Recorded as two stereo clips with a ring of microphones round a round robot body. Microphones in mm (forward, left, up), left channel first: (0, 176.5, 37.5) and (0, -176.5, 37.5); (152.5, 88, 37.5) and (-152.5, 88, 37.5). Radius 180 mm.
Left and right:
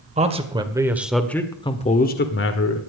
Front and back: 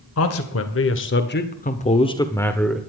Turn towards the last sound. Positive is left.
turn(degrees=90)